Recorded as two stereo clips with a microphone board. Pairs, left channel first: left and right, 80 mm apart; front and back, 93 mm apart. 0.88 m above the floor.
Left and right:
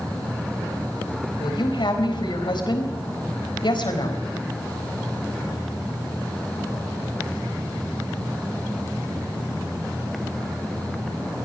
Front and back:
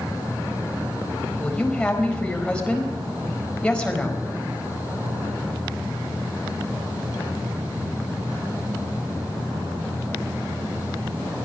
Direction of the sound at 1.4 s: 80° left.